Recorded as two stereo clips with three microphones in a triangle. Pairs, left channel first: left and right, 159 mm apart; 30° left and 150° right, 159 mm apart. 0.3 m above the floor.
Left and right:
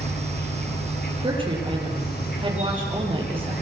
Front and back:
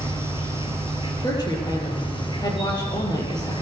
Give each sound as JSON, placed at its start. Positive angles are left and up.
{"t": 0.0, "sound": "an insect", "azimuth_deg": 90, "distance_m": 4.5}
{"t": 1.2, "sound": "a woman speaking", "azimuth_deg": -35, "distance_m": 7.5}